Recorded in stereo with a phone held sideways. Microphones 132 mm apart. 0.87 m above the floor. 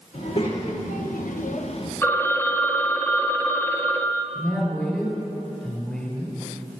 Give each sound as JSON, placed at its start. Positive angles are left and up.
{"t": 0.1, "sound": "a child speaking", "side_deg": 55, "distance_m": 1.7}
{"t": 2.0, "sound": "a phone ringing", "side_deg": 15, "distance_m": 0.6}
{"t": 4.3, "sound": "a woman speaking", "side_deg": 10, "distance_m": 3.0}